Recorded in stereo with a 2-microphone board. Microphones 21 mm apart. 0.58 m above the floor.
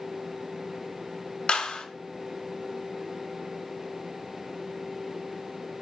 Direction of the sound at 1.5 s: 55° left (ahead or behind).